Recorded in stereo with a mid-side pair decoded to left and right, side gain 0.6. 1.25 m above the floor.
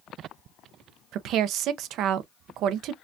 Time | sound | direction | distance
1.1 | a woman speaking | 60° right | 0.7 m